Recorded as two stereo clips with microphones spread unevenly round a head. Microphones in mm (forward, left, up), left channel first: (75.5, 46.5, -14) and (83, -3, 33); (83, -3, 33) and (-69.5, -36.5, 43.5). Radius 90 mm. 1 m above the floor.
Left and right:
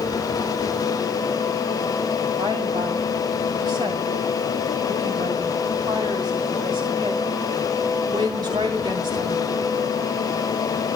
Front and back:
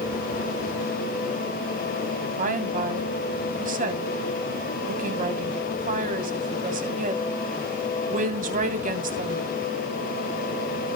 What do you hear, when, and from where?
2.4 s a woman speaking: 135° right, 3 m